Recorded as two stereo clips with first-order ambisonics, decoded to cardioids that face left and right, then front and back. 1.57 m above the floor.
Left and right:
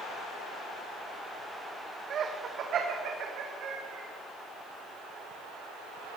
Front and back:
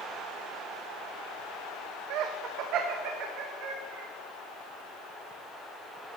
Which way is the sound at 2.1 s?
150° right.